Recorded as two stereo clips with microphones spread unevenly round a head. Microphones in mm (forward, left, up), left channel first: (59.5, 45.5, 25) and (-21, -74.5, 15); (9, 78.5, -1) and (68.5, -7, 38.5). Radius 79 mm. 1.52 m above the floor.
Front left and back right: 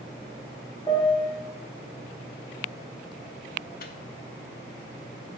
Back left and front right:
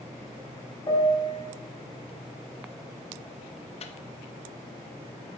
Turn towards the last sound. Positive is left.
turn(degrees=95)